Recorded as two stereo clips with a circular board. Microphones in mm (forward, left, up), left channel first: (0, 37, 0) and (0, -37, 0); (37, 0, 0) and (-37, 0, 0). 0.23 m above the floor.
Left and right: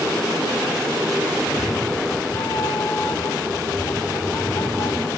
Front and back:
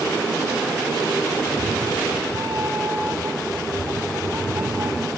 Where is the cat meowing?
125° left, 4.5 m; by 5.1 s 120° left, 8.5 m.